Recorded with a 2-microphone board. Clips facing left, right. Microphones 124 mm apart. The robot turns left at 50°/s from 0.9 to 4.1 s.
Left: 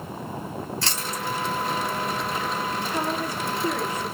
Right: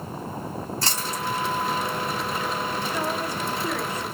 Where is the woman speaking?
65° left, 1.7 m; by 4.1 s straight ahead, 1.7 m.